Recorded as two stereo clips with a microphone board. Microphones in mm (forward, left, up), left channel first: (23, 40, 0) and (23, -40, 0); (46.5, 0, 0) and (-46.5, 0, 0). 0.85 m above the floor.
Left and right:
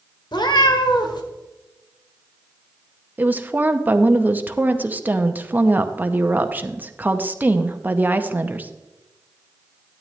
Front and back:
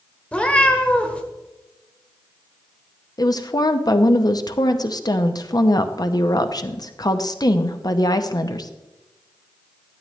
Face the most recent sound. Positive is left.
turn(degrees=-30)